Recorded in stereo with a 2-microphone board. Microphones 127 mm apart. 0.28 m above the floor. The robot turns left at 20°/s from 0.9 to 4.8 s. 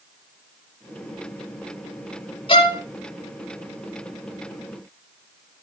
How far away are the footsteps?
No footsteps in this recording.